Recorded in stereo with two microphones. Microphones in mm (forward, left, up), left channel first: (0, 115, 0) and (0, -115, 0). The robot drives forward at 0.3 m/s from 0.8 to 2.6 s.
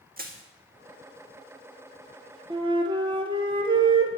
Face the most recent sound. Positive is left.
turn(degrees=-20)  # may be behind; listen again after turning